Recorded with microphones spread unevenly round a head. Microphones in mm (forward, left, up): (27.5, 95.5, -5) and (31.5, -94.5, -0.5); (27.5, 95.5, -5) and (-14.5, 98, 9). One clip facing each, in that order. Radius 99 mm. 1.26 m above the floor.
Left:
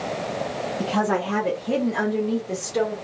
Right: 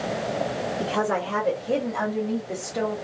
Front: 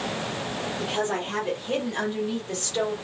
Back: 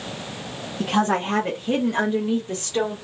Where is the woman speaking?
140° left, 1.0 m; by 3.0 s 105° left, 2 m.